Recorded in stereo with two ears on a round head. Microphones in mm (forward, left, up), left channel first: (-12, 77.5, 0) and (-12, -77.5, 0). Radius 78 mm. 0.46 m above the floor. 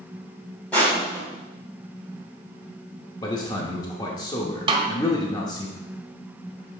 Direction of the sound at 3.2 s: 25° left (ahead or behind).